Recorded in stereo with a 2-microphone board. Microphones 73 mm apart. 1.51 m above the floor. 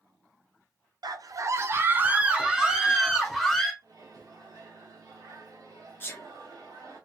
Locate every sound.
1.0 s a scream: 65° right (ahead or behind), 0.7 m; by 3.7 s 5° left (ahead or behind), 1.7 m
3.8 s a microwave: 55° right (ahead or behind), 1.3 m
6.0 s a sneeze: 30° left (ahead or behind), 0.6 m